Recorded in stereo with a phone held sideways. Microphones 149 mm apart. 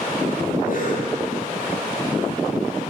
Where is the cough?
65° left (ahead or behind), 9 m.